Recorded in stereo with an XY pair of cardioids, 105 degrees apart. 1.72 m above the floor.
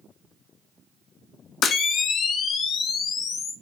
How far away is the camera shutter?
About 0.7 m.